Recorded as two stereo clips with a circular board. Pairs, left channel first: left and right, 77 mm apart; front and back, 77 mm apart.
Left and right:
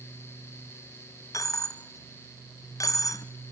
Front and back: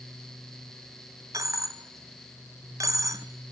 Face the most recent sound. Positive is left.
turn(degrees=135)